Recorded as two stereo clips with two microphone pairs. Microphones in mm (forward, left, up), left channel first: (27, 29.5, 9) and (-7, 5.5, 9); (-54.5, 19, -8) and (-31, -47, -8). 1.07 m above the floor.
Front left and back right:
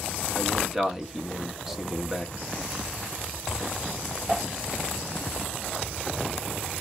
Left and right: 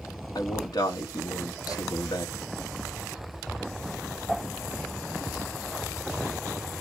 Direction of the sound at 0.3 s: 135° left.